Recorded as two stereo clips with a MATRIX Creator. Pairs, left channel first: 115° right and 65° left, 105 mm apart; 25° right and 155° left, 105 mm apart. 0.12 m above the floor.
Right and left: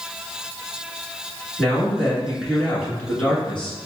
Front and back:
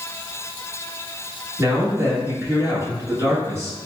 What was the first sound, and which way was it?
A man speaking, 175° left.